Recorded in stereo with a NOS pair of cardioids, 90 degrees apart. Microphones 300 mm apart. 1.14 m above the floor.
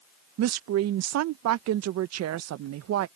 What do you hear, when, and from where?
0.4 s a woman speaking: 55° right